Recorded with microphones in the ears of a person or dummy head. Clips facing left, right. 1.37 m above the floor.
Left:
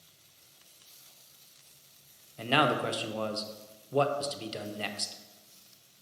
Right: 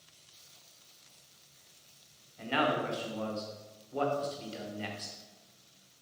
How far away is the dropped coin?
I don't hear a dropped coin.